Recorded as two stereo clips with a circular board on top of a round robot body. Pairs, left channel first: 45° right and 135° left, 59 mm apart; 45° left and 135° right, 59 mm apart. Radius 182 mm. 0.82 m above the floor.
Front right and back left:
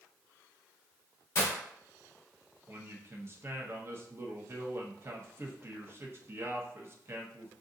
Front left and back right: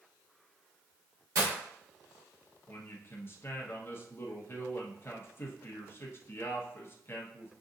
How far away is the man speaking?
About 1.3 m.